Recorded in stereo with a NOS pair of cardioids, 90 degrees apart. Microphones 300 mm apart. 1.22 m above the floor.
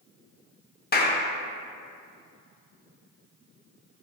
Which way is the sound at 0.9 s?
30° left.